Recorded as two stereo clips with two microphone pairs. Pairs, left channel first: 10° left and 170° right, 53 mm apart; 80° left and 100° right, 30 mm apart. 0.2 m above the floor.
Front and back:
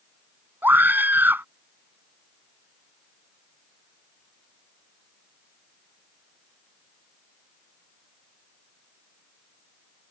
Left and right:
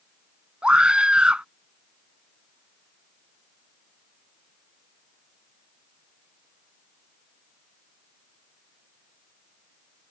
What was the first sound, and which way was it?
A scream, 135° right.